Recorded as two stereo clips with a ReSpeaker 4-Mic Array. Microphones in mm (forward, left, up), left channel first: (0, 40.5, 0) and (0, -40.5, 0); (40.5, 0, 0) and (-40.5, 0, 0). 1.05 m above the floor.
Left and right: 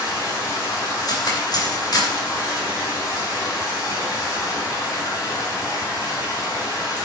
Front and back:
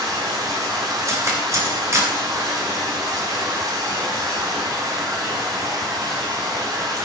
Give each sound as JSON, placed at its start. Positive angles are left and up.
{"t": 0.0, "sound": "running water", "azimuth_deg": 140, "distance_m": 4.5}
{"t": 1.1, "sound": "cutlery clinking", "azimuth_deg": 130, "distance_m": 3.0}